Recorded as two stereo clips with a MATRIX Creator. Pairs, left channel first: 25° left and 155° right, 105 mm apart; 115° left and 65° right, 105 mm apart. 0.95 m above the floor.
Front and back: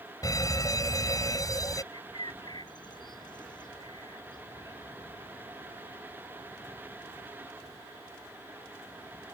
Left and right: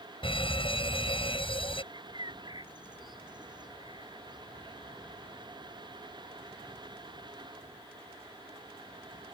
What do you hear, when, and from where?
0.2 s a fire alarm: 80° left
1.9 s a bird: 20° right